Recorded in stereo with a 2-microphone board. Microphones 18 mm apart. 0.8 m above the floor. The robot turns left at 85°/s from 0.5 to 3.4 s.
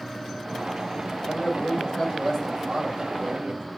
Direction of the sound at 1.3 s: 115° left.